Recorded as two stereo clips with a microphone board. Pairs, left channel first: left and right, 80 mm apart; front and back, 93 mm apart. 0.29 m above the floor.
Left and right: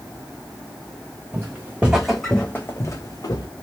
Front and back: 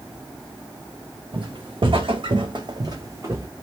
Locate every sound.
1.3 s footsteps: 150° right, 0.9 m; by 3.5 s 115° left, 0.8 m